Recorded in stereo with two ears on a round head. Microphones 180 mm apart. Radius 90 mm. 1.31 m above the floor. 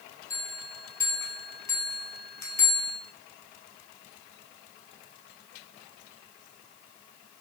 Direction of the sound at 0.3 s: 15° left (ahead or behind).